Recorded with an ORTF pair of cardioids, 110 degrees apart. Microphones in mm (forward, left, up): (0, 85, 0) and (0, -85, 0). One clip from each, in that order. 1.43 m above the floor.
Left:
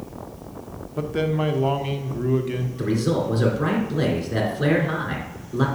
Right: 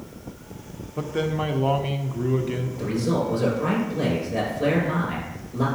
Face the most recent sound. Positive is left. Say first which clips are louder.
# left 2 dB
turn(degrees=65)